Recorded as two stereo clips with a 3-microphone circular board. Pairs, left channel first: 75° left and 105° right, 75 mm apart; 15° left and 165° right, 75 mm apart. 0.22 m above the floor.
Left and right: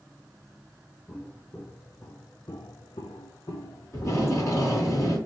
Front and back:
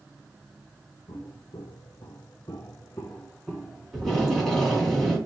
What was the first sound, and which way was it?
Footsteps, straight ahead.